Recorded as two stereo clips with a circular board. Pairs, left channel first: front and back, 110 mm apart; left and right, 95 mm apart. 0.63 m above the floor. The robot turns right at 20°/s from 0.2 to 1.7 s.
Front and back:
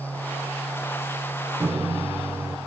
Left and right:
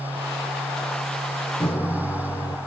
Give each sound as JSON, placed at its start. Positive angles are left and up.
{"t": 1.6, "sound": "a microwave", "azimuth_deg": 110, "distance_m": 1.3}